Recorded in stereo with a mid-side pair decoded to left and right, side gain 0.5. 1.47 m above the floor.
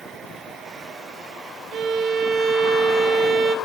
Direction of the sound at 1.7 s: 65° right.